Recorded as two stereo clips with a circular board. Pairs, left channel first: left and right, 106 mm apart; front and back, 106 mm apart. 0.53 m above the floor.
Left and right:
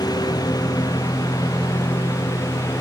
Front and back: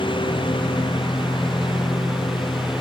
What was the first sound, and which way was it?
A lawn mower, 40° left.